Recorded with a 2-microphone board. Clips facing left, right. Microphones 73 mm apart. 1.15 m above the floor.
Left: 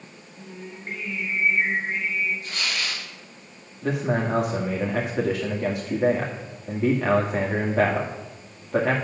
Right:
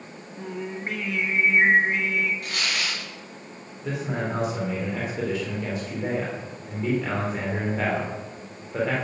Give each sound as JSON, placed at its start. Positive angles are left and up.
{"t": 0.4, "sound": "singing", "side_deg": -75, "distance_m": 1.1}
{"t": 2.4, "sound": "tearing paper", "side_deg": -65, "distance_m": 6.5}
{"t": 3.8, "sound": "a man speaking", "side_deg": 75, "distance_m": 2.0}